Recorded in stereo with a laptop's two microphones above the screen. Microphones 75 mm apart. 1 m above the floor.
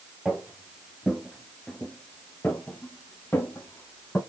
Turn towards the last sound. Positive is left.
turn(degrees=25)  # may be behind; listen again after turning